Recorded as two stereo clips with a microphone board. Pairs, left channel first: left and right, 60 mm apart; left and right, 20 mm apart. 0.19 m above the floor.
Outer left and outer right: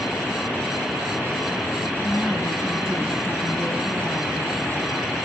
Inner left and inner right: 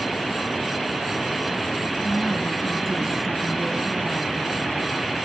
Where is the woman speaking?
10° right (ahead or behind), 3 m.